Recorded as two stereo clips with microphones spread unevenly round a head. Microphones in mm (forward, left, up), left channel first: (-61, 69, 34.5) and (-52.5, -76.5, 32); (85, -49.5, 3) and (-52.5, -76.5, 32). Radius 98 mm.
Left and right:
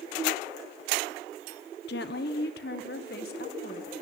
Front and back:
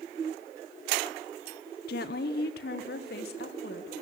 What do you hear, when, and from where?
1.9 s a woman speaking: 55° left, 1.1 m; by 3.9 s 50° left, 2.5 m